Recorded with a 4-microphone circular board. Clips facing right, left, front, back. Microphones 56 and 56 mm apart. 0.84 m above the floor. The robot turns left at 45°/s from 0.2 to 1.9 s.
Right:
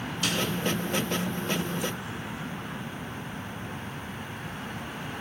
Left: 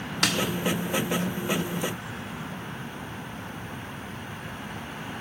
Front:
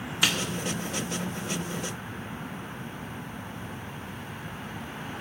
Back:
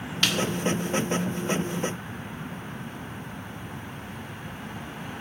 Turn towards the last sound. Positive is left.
turn(degrees=5)